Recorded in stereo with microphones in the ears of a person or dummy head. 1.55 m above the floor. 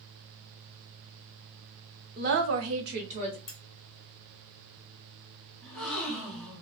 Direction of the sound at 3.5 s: 20° left (ahead or behind).